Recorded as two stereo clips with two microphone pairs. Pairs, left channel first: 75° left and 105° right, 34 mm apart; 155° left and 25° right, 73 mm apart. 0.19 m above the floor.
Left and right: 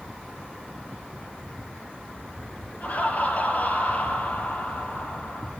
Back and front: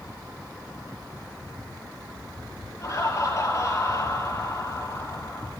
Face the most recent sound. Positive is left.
turn(degrees=115)